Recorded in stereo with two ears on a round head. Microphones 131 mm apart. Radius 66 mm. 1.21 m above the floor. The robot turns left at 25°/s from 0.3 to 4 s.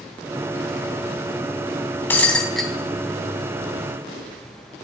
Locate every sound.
2.1 s breaking glass: 15° left (ahead or behind), 2.5 m; by 2.7 s centre (ahead or behind), 2.5 m